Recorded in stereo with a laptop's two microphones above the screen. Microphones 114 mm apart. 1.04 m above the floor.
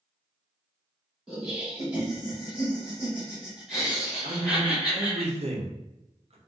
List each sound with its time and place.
1.3 s laughter: 5° right (ahead or behind), 0.9 m
4.2 s a man speaking: 70° right (ahead or behind), 0.7 m